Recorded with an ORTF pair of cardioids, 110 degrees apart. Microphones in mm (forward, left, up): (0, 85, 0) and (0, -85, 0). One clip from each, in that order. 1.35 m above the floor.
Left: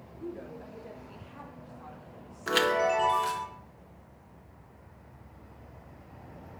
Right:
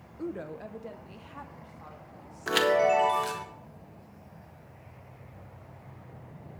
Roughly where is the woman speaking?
Ahead right.